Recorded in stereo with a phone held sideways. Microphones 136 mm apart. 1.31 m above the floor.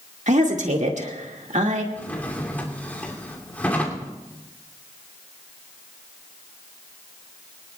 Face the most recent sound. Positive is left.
turn(degrees=10)  # may be behind; listen again after turning